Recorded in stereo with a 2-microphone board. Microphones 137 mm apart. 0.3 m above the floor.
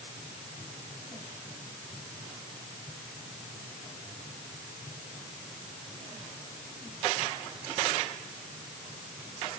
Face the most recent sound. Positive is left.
No sound to turn to.